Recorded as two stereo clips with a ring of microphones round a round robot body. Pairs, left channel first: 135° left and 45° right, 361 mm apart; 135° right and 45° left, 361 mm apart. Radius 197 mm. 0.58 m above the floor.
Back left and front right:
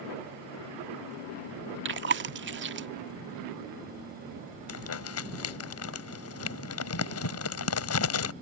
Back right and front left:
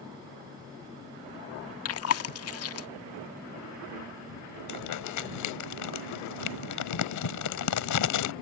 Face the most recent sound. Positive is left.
turn(degrees=-175)